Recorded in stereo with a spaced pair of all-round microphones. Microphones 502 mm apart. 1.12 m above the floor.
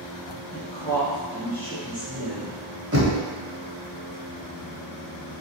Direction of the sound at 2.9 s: 30° right (ahead or behind).